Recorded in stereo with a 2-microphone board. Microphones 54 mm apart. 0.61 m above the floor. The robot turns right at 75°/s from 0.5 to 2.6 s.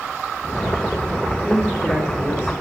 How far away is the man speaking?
About 1.2 m.